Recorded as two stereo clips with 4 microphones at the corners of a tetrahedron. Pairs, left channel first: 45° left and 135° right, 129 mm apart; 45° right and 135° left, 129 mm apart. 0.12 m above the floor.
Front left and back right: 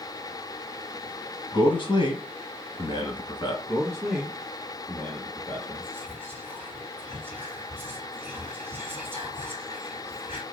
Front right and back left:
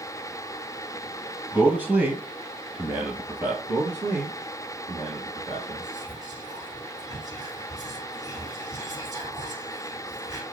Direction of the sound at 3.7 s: 130° left.